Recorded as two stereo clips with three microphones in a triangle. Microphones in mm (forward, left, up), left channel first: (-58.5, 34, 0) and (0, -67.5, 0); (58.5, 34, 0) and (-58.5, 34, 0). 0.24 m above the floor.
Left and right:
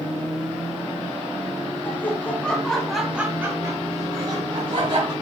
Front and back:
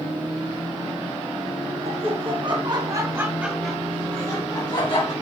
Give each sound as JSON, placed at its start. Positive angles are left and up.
{"t": 1.9, "sound": "laughter", "azimuth_deg": -170, "distance_m": 2.5}